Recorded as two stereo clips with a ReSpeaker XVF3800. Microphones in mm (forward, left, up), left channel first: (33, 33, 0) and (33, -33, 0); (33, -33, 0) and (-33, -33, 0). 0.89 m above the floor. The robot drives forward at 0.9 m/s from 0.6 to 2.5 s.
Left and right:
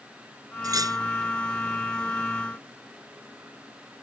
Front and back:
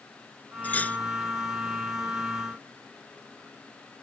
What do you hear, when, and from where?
0.6 s cutlery clinking: 65° right; by 1.0 s 70° right